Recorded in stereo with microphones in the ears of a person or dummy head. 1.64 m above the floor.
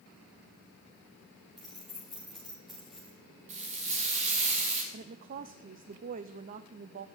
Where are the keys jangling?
Centre (ahead or behind), 0.5 m.